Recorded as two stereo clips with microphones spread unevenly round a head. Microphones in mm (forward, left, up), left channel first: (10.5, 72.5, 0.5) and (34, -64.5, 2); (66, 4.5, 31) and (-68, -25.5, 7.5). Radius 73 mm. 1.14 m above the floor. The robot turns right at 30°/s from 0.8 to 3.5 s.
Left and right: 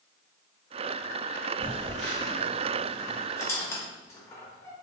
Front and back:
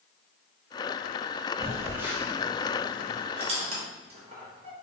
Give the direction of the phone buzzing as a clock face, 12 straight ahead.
4 o'clock.